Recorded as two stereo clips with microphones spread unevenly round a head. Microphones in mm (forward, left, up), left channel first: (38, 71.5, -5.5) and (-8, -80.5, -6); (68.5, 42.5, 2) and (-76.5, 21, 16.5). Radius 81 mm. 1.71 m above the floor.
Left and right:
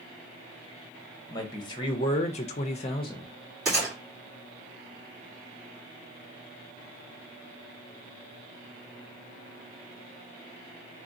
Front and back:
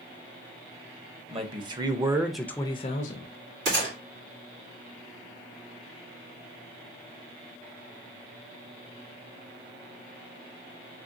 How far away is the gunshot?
About 2.5 m.